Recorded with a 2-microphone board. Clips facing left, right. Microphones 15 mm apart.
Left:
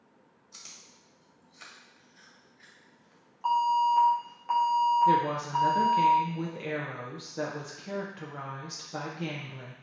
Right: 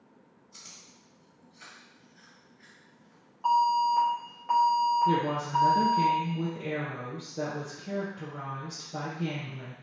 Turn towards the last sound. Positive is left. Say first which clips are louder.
# left 2 dB
turn(degrees=50)  # may be behind; listen again after turning